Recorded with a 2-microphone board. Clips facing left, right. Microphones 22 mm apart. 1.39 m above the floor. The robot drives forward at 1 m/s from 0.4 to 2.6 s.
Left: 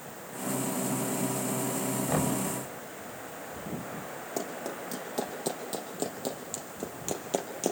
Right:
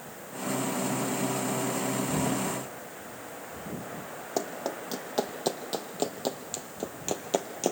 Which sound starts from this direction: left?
Knocking, at 2.1 s.